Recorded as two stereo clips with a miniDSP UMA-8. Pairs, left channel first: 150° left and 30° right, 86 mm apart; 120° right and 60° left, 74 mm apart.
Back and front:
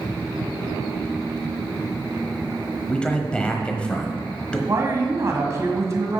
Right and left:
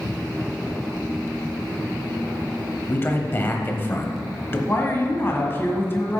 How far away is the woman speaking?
About 1.6 m.